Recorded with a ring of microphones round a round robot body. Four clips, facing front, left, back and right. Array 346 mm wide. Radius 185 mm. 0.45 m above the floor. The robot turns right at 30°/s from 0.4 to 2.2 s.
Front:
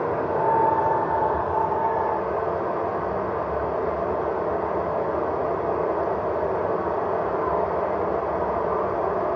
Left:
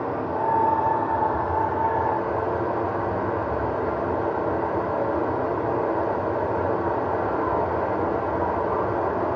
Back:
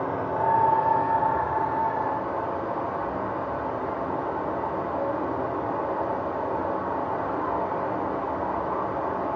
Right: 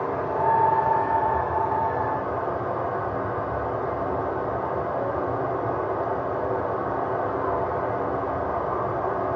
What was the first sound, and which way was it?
Running water, 5° left.